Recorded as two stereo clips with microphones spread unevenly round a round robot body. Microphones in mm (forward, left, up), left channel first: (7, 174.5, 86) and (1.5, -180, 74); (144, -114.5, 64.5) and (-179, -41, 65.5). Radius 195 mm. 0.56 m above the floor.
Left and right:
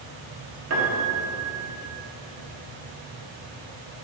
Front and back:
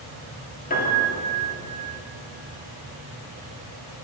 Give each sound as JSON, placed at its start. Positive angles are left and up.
{"t": 0.7, "sound": "a piano", "azimuth_deg": -70, "distance_m": 1.4}